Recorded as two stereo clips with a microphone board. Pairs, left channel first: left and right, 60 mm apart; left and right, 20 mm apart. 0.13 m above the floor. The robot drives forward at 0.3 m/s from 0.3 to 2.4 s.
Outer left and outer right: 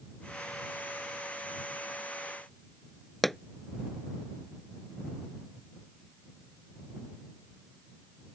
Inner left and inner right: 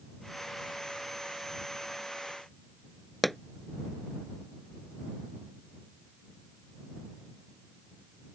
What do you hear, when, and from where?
3.2 s a pop: 5° left (ahead or behind)